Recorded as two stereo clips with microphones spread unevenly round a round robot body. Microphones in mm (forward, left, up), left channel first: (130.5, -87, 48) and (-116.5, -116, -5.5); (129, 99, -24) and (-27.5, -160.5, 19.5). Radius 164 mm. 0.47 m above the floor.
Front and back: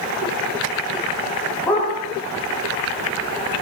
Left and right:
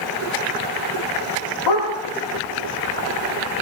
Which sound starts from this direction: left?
A dog barking, at 1.7 s.